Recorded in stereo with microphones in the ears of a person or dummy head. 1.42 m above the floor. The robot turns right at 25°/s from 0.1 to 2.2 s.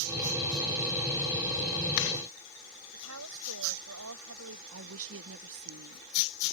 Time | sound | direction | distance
2.9 | a woman speaking | 85° right | ?
4.7 | a woman speaking | 75° right (ahead or behind) | ?